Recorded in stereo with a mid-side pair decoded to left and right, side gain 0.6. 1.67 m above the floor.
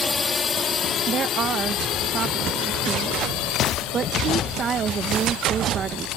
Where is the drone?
20° left; by 6.2 s 75° left.